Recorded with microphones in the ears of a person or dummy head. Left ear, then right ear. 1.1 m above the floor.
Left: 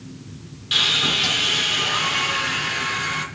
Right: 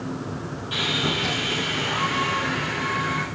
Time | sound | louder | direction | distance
0.7 | sawing | left 6 dB | 55° left (ahead or behind) | 2 m